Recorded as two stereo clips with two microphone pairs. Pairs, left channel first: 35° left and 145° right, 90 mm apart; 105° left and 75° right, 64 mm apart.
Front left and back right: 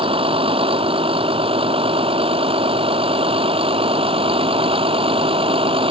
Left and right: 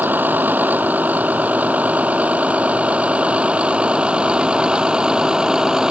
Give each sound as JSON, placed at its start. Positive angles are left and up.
{"t": 0.0, "sound": "a vehicle", "azimuth_deg": -135}